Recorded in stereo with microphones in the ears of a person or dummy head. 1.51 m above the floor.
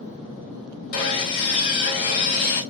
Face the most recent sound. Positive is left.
turn(degrees=55)  # may be behind; listen again after turning